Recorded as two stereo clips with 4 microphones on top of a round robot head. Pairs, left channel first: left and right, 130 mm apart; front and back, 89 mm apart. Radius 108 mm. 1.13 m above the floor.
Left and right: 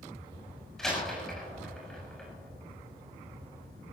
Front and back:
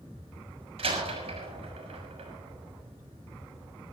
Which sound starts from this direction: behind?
A door slam, at 0.8 s.